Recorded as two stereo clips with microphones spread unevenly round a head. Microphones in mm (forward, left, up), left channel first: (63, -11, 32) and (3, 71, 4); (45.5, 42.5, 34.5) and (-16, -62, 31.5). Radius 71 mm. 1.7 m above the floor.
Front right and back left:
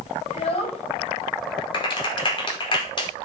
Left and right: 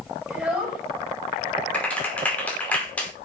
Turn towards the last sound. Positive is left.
turn(degrees=-20)